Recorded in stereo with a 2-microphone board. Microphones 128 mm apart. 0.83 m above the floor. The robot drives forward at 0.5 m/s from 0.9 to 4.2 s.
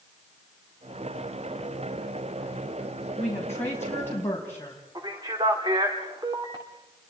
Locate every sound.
3.2 s a woman speaking: 20° left (ahead or behind), 5.5 m
5.0 s a man speaking: 35° right (ahead or behind), 2 m